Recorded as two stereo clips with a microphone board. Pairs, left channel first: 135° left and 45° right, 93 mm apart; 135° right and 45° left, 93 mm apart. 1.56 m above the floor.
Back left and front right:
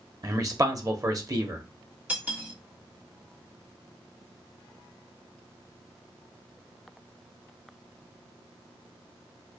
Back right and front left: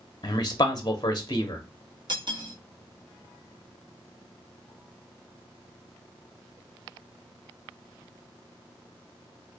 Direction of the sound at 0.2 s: 95° right.